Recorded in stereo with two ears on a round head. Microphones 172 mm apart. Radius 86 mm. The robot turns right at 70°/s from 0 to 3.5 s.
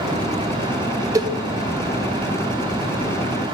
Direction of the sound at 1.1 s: 15° right (ahead or behind).